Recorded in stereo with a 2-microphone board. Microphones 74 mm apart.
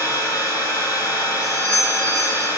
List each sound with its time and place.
0.0 s an engine running: 50° left (ahead or behind), 1.2 m
1.4 s a doorbell: 35° left (ahead or behind), 1.9 m